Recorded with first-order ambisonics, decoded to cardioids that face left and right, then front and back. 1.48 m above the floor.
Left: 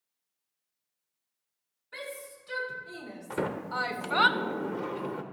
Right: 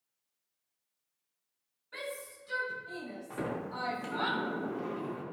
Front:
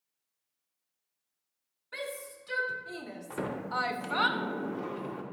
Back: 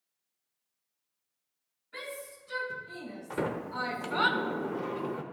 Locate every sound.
1.9 s a shout: 5° left, 3.5 m; by 4.3 s 90° left, 0.7 m
3.3 s a sliding door: 105° left, 0.7 m